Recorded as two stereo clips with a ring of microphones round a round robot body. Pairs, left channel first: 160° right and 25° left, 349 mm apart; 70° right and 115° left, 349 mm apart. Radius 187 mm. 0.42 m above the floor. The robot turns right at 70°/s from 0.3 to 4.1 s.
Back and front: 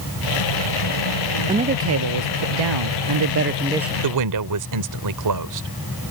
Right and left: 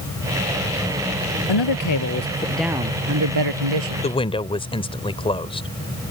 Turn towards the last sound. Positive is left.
turn(degrees=5)